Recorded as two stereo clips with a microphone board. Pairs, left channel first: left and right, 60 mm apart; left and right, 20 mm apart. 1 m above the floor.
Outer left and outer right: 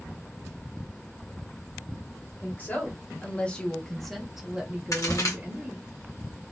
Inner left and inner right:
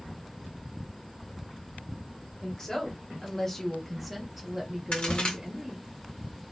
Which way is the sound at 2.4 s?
30° left (ahead or behind).